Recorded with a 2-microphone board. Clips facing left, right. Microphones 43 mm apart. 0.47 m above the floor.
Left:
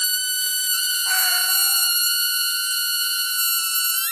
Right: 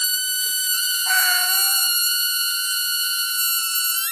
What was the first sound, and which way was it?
A cat meowing, 25° right (ahead or behind).